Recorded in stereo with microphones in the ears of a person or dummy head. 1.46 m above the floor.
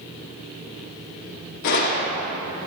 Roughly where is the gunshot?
Left.